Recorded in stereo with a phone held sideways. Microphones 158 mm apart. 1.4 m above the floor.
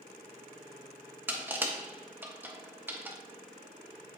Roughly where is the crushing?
Centre.